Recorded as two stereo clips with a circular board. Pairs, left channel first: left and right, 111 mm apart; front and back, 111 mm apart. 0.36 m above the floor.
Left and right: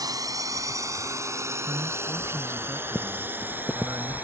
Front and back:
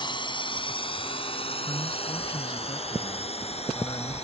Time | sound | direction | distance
0.0 | a drone | 40° right | ?
1.7 | a man speaking | 30° right | ?